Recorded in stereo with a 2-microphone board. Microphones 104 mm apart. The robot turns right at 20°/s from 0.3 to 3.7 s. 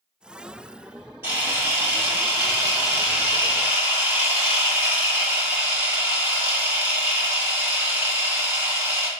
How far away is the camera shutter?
About 1.3 m.